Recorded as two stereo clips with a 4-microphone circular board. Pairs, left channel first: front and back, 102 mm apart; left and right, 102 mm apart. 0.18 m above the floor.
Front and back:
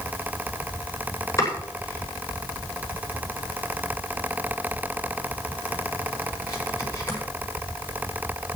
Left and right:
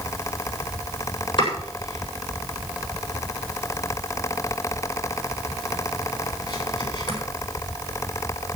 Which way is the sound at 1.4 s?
55° left.